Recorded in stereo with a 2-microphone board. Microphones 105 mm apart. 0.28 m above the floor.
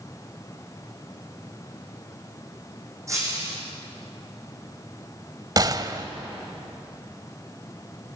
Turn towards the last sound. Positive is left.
turn(degrees=-40)  # may be behind; listen again after turning